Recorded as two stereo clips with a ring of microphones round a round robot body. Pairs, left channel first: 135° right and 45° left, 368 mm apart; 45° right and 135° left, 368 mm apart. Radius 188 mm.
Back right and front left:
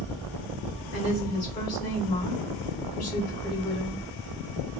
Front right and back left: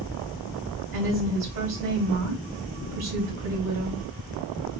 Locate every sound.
0.9 s a woman speaking: 160° left, 2 m